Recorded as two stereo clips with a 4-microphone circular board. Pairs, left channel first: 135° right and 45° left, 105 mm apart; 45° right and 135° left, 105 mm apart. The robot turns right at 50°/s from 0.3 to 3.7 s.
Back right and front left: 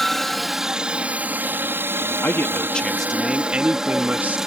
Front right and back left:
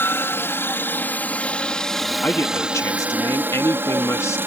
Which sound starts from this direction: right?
A man speaking, at 2.2 s.